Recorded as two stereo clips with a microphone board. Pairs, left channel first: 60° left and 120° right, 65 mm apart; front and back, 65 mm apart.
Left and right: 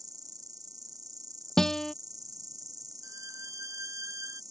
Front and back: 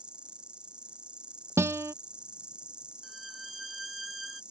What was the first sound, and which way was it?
An insect, 105° right.